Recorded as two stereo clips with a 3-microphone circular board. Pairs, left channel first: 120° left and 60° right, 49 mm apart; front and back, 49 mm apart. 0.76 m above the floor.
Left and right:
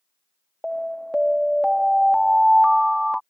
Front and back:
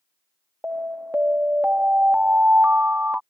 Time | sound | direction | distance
0.6 | an alarm | 145° right | ?